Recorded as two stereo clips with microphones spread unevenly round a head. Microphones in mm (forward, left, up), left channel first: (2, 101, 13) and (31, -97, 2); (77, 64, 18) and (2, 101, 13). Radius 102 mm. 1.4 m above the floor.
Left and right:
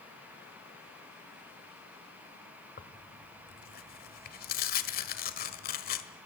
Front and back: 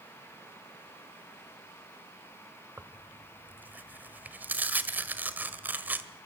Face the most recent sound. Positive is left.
turn(degrees=90)